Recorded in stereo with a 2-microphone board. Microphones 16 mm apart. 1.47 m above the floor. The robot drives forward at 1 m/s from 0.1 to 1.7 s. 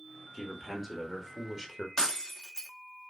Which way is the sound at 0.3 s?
15° left (ahead or behind).